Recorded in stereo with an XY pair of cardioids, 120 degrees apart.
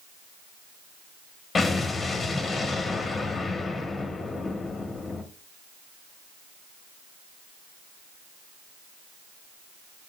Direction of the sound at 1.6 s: 30° left.